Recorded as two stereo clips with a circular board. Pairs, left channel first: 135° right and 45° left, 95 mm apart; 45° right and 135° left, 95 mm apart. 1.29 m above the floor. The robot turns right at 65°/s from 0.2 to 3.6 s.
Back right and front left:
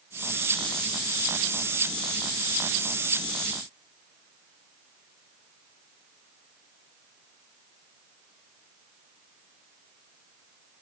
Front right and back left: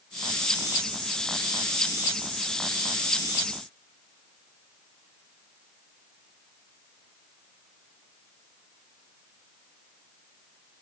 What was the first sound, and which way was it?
Only background noise.